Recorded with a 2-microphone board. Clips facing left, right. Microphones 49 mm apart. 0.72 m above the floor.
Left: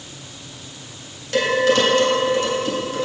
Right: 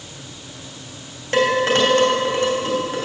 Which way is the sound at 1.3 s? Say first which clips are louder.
Even; 35° right (ahead or behind).